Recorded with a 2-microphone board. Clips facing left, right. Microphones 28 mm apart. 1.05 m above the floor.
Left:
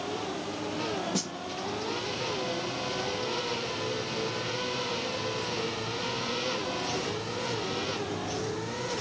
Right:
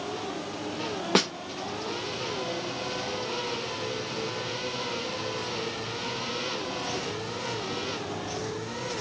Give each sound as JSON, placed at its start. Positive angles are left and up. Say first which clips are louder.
{"t": 1.1, "sound": "a snare drum", "louder": "right 9 dB", "side_deg": -55, "distance_m": 0.6}